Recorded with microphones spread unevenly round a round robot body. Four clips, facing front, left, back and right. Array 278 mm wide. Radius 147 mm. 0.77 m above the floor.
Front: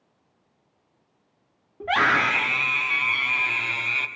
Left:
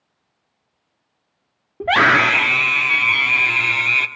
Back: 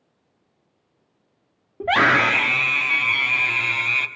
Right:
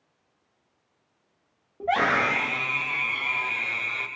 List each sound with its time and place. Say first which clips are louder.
1.8 s a scream: left 8 dB, back 4 dB; 135° left, 1.5 m; by 4.1 s 90° left, 1.8 m